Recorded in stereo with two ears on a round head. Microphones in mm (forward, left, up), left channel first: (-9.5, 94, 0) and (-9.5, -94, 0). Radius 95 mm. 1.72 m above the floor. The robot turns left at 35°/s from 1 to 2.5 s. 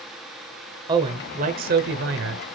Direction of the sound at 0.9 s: 25° right.